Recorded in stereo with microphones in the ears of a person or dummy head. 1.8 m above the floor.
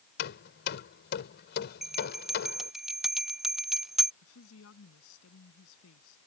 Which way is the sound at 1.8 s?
5° right (ahead or behind).